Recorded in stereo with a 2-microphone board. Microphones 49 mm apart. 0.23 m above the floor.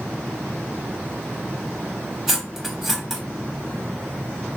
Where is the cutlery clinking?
5° right (ahead or behind), 0.8 m.